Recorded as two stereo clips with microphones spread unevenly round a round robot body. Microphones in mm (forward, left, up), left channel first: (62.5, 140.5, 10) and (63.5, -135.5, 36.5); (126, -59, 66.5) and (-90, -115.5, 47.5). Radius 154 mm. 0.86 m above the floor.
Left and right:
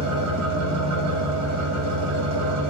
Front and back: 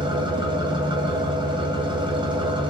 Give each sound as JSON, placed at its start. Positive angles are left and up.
{"t": 0.0, "sound": "an engine running", "azimuth_deg": -105, "distance_m": 0.8}